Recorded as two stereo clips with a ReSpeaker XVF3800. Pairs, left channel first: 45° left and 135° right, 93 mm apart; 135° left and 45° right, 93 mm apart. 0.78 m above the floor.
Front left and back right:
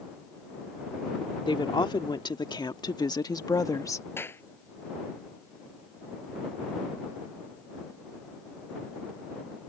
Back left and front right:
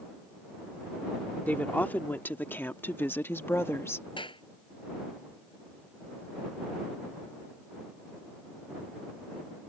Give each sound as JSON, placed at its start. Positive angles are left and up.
{"t": 1.5, "sound": "a woman speaking", "azimuth_deg": 65}
{"t": 4.2, "sound": "a clap", "azimuth_deg": 110}